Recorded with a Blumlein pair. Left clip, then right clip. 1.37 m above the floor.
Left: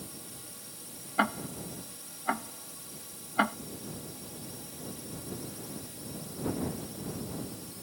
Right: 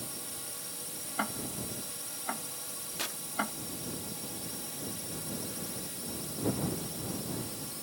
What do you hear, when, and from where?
0.0 s a drone: 15° right
1.2 s ticking: 70° left
3.0 s tearing paper: 45° right